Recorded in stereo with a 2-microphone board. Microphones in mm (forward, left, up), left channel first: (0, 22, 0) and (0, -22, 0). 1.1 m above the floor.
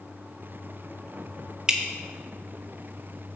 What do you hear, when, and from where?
1.7 s dripping: 20° right (ahead or behind), 0.8 m